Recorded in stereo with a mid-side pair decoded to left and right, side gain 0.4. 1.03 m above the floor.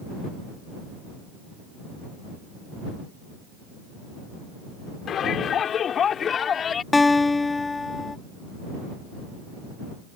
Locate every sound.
5.1 s a shout: 70° left; by 6.8 s 55° left
6.9 s a guitar: 25° left